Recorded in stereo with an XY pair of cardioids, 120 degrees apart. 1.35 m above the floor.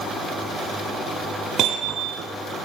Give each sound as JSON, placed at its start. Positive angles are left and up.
{"t": 1.6, "sound": "hammering", "azimuth_deg": -65, "distance_m": 8.0}